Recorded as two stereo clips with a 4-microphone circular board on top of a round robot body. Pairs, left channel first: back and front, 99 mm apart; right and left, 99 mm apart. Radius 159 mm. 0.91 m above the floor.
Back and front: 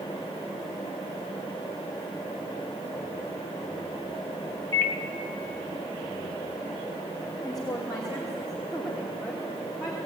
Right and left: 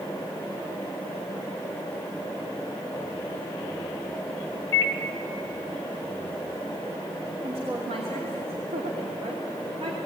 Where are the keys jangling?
No keys jangling in this recording.